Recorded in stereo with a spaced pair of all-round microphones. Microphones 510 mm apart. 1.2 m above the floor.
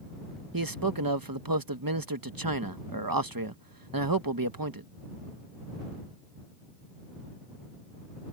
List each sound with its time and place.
0.5 s a man speaking: 45° right (ahead or behind)